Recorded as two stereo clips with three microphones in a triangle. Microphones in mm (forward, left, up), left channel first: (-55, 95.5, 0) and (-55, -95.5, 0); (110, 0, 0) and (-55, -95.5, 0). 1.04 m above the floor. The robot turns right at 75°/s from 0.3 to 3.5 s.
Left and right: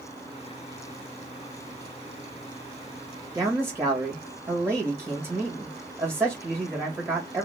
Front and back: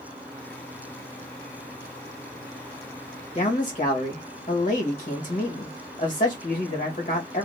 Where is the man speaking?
25° right, 1.5 m; by 7.4 s 15° right, 1.5 m.